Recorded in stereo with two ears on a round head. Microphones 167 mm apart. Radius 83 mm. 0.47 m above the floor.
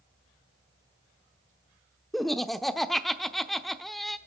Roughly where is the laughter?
Centre.